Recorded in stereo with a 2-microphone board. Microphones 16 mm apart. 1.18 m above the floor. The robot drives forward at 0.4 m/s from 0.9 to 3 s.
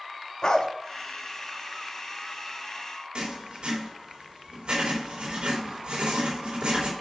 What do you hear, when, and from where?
0.4 s a dog barking: 40° left (ahead or behind), 0.7 m
3.1 s writing: 75° right (ahead or behind), 3 m